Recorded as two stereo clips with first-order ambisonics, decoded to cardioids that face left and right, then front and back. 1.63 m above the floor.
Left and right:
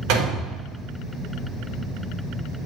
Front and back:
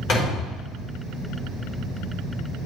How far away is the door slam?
About 4 m.